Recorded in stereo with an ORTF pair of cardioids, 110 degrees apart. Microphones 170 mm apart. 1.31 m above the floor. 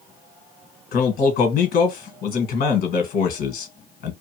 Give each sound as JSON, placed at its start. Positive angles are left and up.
{"t": 0.9, "sound": "a man speaking", "azimuth_deg": 70, "distance_m": 1.5}